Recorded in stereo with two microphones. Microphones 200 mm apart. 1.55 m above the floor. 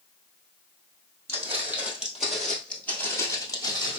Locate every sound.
1.3 s footsteps: 15° right (ahead or behind), 1.9 m; by 4.0 s 25° left (ahead or behind), 1.6 m